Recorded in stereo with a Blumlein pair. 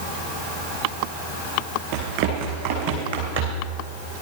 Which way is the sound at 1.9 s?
45° right.